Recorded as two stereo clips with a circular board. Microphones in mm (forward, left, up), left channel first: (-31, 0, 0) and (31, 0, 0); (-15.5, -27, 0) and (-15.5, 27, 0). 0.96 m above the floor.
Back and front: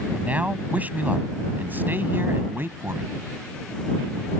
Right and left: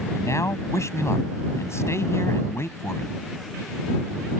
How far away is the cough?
I don't hear a cough.